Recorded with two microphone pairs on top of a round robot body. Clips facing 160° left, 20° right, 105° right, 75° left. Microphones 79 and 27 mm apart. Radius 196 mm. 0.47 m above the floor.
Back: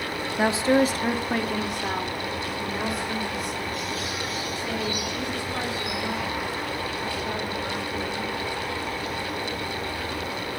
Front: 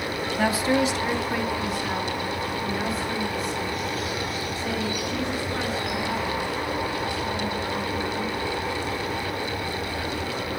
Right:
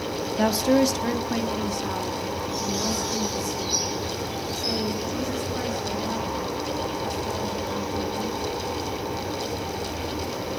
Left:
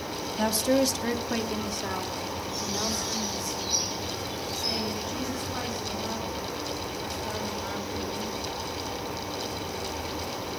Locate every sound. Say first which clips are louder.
0.4 s a woman speaking: back 2 dB, right 4 dB; 155° right, 1.0 m; by 8.4 s 145° left, 9 m